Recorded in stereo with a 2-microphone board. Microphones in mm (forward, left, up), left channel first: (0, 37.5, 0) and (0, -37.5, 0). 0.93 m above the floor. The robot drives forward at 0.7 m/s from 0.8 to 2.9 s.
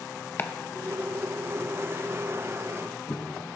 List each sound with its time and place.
0.4 s chopping: 25° left (ahead or behind), 0.7 m; by 3.2 s 20° left (ahead or behind), 1.1 m